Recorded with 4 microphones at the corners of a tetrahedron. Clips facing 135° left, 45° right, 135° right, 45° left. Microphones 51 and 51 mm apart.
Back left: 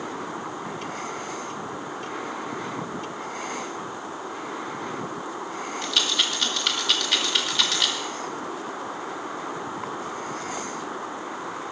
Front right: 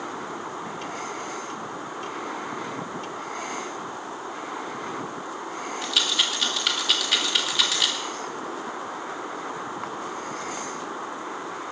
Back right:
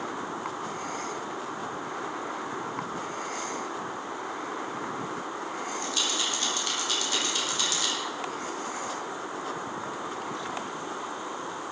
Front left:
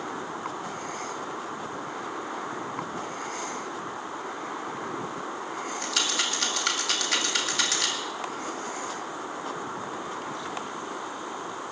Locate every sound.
5.8 s a rattle: 45° left, 2 m